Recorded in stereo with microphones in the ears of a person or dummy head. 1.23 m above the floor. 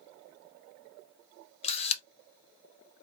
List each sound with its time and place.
1.6 s a camera shutter: 35° left (ahead or behind), 0.7 m